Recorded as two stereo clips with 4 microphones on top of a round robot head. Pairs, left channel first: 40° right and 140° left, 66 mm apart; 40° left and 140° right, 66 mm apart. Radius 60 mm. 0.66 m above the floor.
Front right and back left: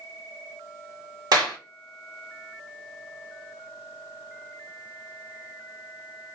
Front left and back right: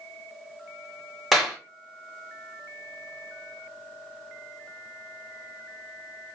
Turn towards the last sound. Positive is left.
turn(degrees=130)